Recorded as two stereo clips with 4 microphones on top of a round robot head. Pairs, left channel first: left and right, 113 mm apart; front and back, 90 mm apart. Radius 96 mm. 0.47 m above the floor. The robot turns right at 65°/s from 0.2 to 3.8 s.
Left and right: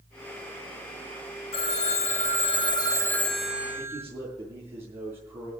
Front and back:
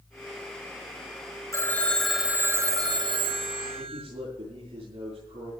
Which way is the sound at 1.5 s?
55° left.